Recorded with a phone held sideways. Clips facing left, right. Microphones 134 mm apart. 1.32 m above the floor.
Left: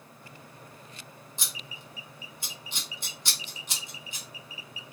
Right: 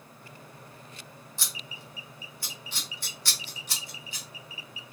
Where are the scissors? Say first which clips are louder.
Even; 20° left (ahead or behind), 0.8 m.